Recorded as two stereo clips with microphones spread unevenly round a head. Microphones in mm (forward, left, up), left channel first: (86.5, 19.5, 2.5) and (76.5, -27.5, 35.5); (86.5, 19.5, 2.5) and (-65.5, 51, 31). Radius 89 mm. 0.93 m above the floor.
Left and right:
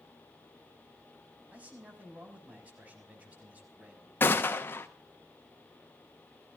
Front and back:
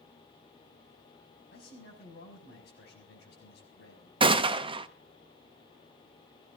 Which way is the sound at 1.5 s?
40° right.